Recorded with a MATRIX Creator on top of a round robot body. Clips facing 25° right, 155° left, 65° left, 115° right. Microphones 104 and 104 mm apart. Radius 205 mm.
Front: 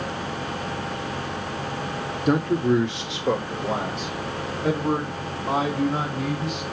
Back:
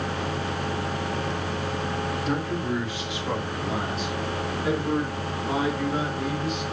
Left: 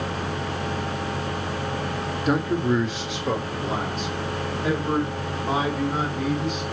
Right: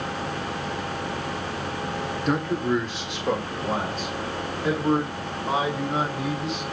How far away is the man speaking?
About 1.4 m.